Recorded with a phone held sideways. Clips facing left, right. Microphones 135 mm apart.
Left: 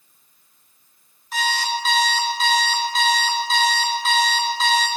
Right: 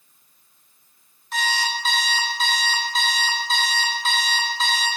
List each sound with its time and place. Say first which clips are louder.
1.3 s an alarm clock: left 2 dB; centre (ahead or behind), 1.2 m